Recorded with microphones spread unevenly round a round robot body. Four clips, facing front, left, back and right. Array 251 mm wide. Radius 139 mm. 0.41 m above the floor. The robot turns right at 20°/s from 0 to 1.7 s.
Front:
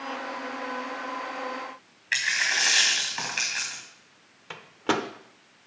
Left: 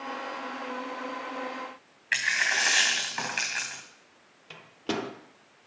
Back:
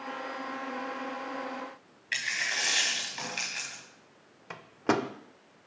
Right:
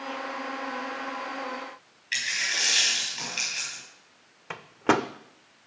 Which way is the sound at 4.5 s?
70° right.